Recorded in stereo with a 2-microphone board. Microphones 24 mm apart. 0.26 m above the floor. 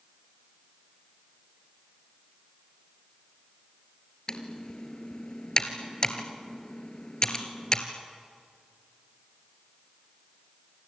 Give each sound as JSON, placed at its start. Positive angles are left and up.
{"t": 4.3, "sound": "typing on a keyboard", "side_deg": 35, "distance_m": 1.9}